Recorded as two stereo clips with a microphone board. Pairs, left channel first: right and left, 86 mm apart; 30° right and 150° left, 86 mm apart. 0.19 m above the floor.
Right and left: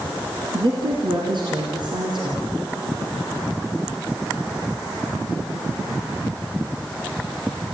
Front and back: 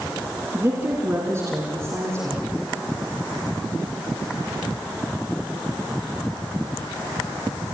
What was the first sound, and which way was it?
A woman speaking, 95° left.